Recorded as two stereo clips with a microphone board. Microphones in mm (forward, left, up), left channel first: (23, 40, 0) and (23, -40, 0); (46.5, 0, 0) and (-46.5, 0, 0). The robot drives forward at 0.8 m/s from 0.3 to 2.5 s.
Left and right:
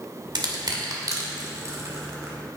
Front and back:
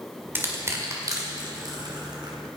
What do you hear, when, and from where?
0.3 s crushing: 115° right, 1.8 m; by 2.4 s 145° right, 3 m